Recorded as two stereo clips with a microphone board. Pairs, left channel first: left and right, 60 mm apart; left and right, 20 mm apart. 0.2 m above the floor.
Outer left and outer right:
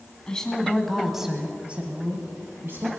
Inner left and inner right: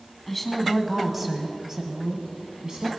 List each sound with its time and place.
0.3 s a woman speaking: 15° left (ahead or behind), 2 m; by 3.0 s 40° right (ahead or behind), 2 m